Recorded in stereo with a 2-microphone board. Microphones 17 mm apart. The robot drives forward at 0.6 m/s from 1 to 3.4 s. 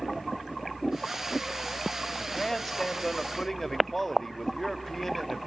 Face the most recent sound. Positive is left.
turn(degrees=15)  # may be behind; listen again after turning